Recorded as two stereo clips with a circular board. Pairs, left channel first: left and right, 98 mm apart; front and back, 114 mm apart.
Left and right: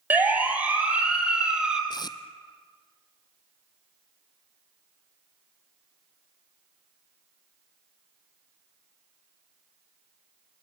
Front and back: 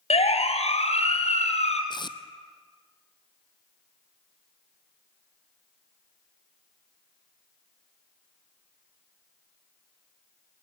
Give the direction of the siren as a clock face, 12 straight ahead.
1 o'clock.